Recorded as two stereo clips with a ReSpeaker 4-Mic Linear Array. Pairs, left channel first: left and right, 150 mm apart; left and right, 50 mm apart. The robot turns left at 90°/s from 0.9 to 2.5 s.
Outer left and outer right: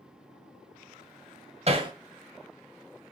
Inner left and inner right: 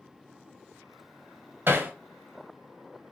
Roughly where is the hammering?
Right.